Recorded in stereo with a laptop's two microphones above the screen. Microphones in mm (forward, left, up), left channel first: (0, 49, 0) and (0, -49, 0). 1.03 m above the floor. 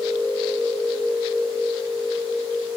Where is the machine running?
10° right (ahead or behind), 6 m.